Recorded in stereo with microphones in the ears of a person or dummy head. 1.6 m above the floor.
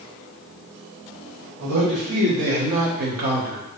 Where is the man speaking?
60° right (ahead or behind), 1.6 m; by 3.6 s 25° right (ahead or behind), 0.5 m.